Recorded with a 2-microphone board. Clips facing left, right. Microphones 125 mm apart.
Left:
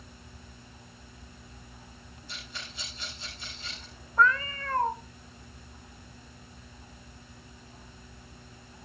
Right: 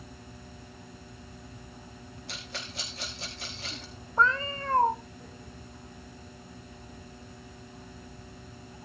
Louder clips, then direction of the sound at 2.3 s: Right 3 dB; 85° right.